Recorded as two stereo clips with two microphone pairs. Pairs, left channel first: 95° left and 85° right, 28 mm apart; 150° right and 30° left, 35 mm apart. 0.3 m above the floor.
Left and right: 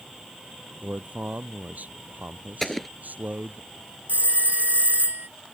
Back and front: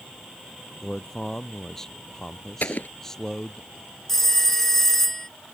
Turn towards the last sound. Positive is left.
turn(degrees=-65)